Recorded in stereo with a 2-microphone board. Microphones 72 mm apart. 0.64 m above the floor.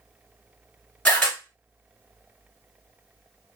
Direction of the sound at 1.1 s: 15° left (ahead or behind).